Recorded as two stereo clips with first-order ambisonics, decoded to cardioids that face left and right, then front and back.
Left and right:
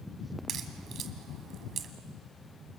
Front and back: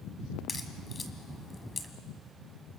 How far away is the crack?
About 1.5 m.